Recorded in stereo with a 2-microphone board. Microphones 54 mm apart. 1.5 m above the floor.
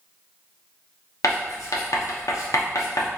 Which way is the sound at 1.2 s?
80° left.